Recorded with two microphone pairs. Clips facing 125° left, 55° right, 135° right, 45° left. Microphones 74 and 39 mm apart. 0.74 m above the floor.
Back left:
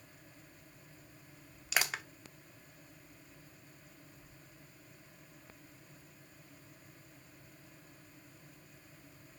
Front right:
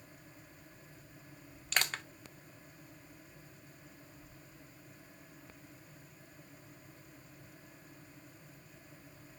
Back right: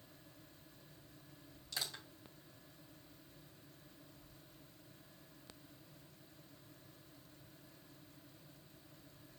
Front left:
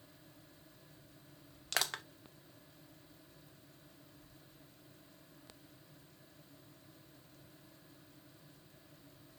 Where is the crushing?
45° left, 0.5 m.